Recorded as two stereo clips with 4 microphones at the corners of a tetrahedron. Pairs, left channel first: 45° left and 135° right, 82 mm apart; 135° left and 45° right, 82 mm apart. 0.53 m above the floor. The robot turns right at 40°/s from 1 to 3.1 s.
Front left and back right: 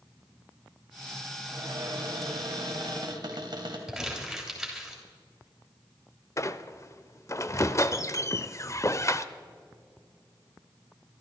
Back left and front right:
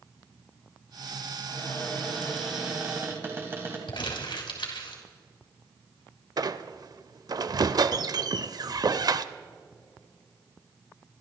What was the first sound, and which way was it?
A cupboard door, 170° right.